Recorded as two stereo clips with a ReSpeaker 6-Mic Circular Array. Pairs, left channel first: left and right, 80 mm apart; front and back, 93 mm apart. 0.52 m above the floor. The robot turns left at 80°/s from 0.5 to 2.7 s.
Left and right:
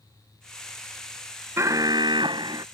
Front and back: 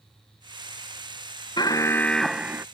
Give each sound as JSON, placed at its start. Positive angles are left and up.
{"t": 1.6, "sound": "an alarm", "azimuth_deg": -35}